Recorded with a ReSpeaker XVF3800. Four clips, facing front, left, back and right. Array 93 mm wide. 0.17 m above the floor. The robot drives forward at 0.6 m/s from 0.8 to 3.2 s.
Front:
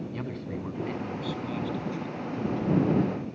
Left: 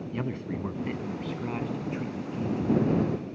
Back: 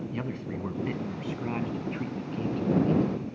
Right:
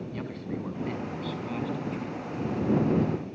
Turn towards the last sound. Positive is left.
turn(degrees=170)